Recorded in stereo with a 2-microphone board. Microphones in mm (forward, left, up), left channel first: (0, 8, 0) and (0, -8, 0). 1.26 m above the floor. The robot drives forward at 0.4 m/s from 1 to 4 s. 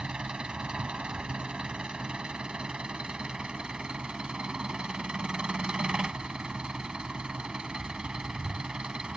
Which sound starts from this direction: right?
An engine running, at 0.0 s.